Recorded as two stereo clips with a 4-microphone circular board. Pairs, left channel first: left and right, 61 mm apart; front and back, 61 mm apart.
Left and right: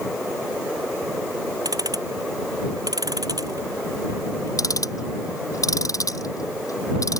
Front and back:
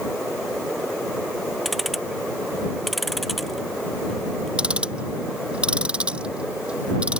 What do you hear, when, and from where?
1.6 s ticking: 90° right
4.6 s ticking: 105° left